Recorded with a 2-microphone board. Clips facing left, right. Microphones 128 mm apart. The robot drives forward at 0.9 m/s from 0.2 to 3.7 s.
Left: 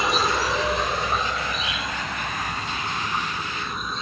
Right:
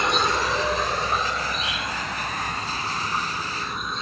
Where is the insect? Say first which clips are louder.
Even; centre (ahead or behind).